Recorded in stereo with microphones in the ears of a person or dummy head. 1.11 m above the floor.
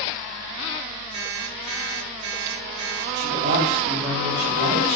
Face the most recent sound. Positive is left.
turn(degrees=-50)  # may be behind; listen again after turning